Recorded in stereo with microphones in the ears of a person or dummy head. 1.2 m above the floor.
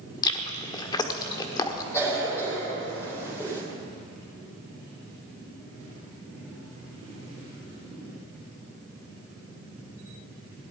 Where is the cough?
15° left (ahead or behind), 4.5 m.